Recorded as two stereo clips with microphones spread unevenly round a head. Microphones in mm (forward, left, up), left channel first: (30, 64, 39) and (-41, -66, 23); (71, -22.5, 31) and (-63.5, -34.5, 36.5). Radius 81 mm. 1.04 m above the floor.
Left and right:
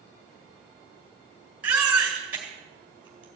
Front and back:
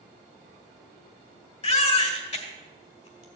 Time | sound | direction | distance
1.6 | a baby crying | 40° right | 3 m